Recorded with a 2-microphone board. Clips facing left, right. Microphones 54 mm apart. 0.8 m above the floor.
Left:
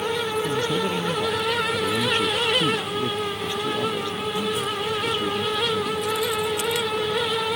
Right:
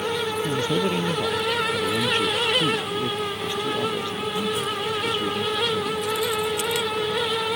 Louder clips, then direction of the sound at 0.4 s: Even; 10° right (ahead or behind).